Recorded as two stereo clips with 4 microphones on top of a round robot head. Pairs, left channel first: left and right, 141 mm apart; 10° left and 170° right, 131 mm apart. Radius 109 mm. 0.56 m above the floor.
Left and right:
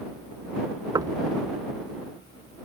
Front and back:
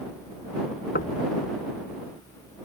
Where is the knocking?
25° right.